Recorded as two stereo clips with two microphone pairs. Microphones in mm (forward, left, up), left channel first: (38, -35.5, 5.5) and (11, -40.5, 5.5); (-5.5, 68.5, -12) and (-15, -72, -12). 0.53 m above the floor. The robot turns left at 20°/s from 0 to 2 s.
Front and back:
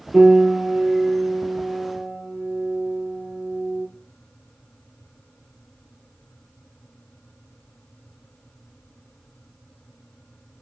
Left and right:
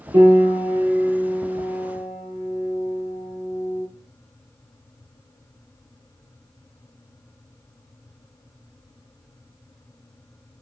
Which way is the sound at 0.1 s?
135° right.